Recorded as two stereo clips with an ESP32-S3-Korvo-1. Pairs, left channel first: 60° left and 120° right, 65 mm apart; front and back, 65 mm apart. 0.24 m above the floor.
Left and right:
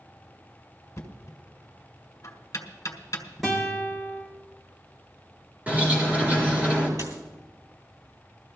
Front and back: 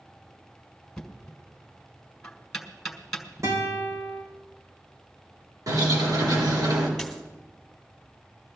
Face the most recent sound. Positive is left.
turn(degrees=-95)